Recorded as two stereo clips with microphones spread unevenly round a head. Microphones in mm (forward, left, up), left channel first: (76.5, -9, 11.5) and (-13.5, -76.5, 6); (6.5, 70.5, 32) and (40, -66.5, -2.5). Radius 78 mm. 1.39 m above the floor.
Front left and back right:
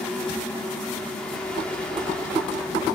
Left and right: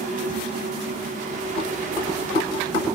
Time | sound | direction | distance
0.0 | a fan | 45° right | 4.5 m